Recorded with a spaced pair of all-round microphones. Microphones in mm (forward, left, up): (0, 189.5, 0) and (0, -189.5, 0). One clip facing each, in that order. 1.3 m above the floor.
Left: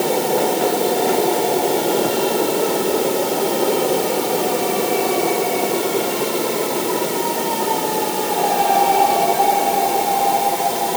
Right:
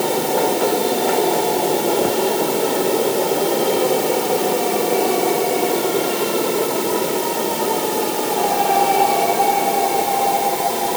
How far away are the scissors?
No scissors in this recording.